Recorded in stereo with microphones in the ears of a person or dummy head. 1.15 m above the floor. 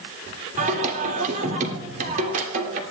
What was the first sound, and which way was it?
Singing, 45° right (ahead or behind).